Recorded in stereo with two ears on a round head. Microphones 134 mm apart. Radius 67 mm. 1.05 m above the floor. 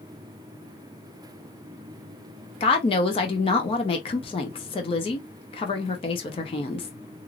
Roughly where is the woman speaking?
Left.